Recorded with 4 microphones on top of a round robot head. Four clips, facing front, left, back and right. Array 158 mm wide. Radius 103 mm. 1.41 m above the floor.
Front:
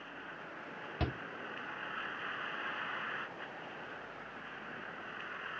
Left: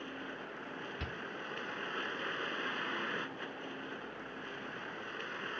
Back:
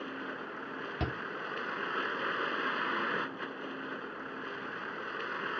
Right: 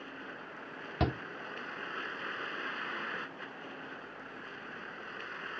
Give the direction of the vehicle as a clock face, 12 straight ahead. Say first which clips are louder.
Left 1 dB, back 8 dB; 6 o'clock.